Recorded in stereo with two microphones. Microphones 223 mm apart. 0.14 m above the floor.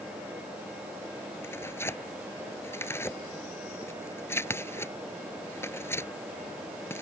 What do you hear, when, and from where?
1.4 s tearing paper: 10° left (ahead or behind)